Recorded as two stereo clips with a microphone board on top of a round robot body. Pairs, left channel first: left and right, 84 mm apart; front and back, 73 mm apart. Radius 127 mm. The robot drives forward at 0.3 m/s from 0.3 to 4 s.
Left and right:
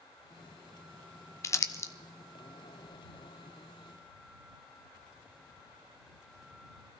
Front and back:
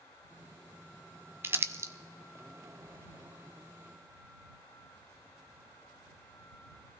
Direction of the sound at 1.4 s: 130° left.